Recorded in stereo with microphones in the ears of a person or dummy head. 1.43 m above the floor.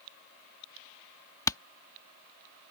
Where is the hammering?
15° left (ahead or behind).